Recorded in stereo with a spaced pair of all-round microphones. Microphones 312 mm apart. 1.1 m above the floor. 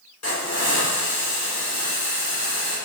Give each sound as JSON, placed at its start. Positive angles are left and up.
{"t": 0.2, "sound": "a hiss", "side_deg": 55, "distance_m": 1.7}